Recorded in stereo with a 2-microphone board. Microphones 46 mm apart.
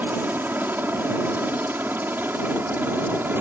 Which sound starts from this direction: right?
A helicopter, at 0.0 s.